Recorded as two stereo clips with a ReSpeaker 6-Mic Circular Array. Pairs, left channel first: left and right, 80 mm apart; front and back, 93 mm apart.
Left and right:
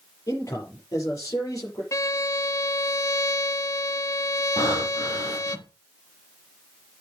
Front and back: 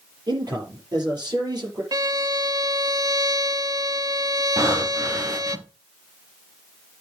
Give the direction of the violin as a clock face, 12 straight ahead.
8 o'clock.